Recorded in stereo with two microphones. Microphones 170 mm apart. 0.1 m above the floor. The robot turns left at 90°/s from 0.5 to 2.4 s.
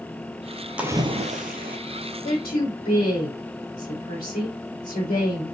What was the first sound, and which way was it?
A splash, 5° right.